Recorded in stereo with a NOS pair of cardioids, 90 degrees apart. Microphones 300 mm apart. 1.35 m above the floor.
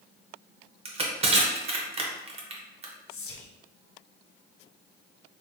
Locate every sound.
0.8 s crushing: 20° right, 0.6 m
3.1 s whispering: 50° left, 0.7 m